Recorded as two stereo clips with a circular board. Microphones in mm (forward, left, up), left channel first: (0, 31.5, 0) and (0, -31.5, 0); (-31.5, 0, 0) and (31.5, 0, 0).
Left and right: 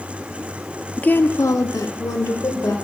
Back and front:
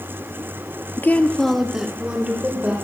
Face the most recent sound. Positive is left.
turn(degrees=70)